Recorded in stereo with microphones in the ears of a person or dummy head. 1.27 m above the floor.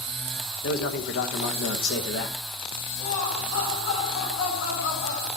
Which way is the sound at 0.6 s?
60° left (ahead or behind).